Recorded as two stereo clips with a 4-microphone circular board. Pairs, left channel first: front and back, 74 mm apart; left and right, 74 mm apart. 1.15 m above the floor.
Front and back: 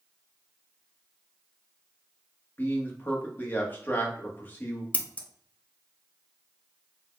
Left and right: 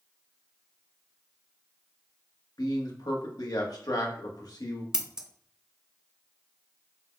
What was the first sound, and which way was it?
A man speaking, 60° left.